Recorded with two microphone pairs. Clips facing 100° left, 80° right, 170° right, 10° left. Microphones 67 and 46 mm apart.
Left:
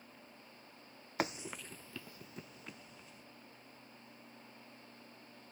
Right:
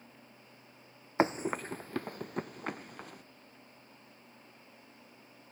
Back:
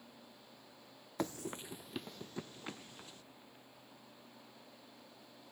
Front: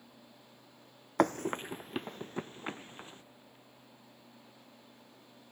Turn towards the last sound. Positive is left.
turn(degrees=-50)